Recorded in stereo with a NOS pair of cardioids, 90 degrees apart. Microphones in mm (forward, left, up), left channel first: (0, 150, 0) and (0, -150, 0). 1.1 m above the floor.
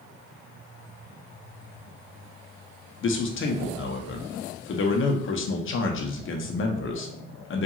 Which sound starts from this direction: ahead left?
A man speaking, at 3.0 s.